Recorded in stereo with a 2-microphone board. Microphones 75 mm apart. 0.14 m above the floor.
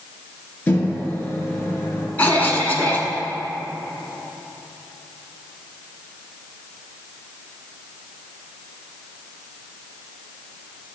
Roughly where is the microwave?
Left.